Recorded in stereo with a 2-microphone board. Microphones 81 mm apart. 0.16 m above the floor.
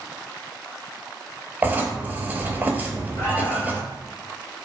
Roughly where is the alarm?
Left.